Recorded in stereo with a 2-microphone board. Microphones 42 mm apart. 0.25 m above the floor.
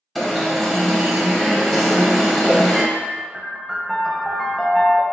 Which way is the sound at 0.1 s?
5° left (ahead or behind).